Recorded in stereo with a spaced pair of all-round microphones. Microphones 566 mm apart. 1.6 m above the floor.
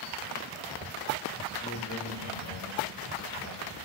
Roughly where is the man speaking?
Left.